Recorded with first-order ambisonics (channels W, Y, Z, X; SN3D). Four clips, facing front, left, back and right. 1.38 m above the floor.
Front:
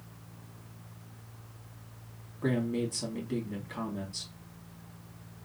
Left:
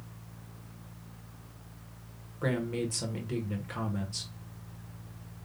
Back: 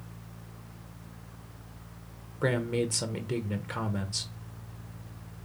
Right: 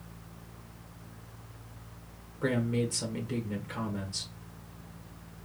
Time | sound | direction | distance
2.4 | a man speaking | 175° left | 1.2 m